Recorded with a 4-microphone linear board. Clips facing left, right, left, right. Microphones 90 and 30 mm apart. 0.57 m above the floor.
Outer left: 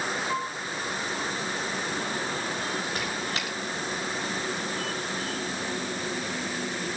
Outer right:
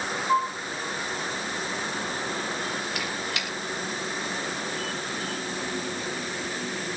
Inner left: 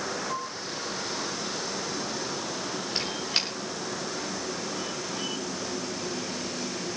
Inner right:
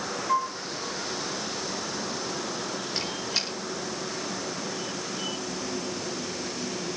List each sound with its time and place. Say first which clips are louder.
0.3 s a flute: outer right 7 dB, inner right 7 dB; 30° right (ahead or behind), 5.5 m
3.0 s a squeak: even, inner left 2 dB; 35° left (ahead or behind), 6 m